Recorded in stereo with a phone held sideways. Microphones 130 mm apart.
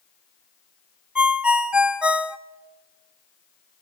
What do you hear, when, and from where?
1.1 s a ringtone: 10° right (ahead or behind), 0.8 m